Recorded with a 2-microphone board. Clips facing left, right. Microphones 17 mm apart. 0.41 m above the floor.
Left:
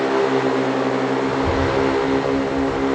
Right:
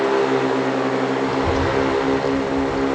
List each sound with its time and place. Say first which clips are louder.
1.2 s a child speaking: even; 45° right (ahead or behind), 5.5 m; by 2.9 s 55° right (ahead or behind), 4 m